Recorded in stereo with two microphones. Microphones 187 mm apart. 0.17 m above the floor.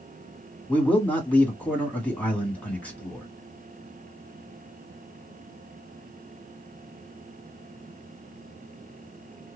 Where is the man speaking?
10° left (ahead or behind), 1.6 m.